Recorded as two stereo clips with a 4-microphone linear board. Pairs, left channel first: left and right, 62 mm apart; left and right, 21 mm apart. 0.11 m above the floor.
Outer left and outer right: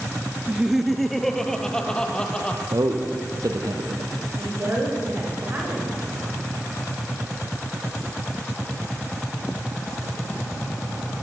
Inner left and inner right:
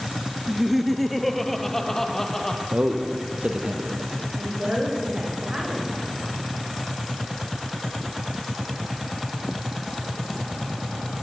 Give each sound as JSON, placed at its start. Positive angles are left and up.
{"t": 0.5, "sound": "laughter", "side_deg": -15, "distance_m": 1.7}
{"t": 2.7, "sound": "a man speaking", "side_deg": -70, "distance_m": 3.0}
{"t": 4.4, "sound": "a woman speaking", "side_deg": -30, "distance_m": 9.5}